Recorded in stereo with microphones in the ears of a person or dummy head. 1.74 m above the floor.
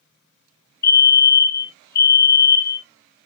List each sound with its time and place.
0.8 s a fire alarm: 15° left (ahead or behind), 1.4 m